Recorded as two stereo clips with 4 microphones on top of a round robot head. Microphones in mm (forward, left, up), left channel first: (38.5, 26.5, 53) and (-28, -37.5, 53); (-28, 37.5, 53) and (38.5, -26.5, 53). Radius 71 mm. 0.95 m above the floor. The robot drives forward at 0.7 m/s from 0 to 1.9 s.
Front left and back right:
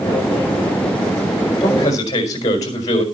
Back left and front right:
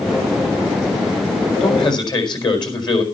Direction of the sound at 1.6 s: 95° left.